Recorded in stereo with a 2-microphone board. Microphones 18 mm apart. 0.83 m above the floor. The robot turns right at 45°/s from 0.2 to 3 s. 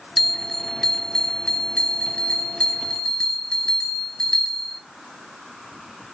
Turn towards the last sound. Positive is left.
turn(degrees=130)